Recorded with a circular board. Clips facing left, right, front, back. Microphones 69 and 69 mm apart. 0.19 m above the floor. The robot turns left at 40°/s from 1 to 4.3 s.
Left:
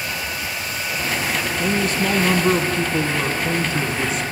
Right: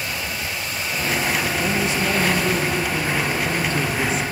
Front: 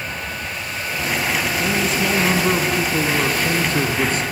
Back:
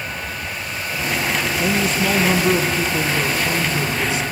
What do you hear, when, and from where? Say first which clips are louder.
1.6 s a man speaking: left 1 dB, back 2 dB; 100° left, 1.8 m; by 4.2 s 5° right, 1.8 m